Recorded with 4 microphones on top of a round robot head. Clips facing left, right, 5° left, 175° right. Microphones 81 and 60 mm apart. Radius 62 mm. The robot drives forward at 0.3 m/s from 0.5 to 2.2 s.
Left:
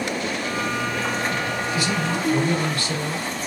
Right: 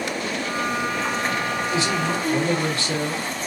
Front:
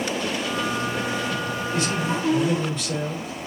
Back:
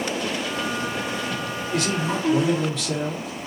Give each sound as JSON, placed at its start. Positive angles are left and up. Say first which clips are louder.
{"t": 1.7, "sound": "a man speaking", "louder": "right 1 dB, back 2 dB", "azimuth_deg": -155, "distance_m": 1.4}